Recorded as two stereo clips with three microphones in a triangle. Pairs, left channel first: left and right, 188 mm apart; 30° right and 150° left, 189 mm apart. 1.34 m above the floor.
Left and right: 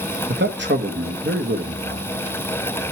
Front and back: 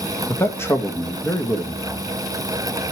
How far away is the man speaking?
About 1.9 m.